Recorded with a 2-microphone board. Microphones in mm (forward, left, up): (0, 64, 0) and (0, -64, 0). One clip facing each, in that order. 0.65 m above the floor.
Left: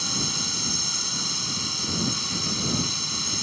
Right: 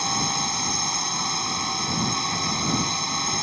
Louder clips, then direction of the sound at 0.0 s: Right 6 dB; 55° right (ahead or behind).